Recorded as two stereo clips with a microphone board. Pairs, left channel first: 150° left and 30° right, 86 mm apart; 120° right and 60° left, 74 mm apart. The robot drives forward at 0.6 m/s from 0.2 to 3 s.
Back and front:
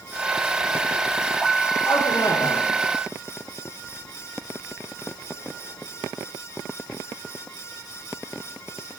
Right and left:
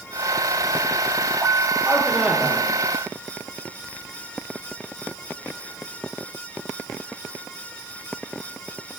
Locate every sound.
1.9 s a man speaking: 135° left, 1.2 m; by 2.7 s 150° left, 1.5 m